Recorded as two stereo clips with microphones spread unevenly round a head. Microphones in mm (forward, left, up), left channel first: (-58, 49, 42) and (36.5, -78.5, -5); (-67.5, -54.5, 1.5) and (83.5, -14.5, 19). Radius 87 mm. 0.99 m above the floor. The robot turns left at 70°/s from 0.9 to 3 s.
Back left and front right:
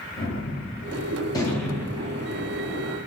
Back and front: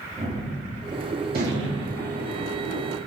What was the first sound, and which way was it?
A gunshot, 85° left.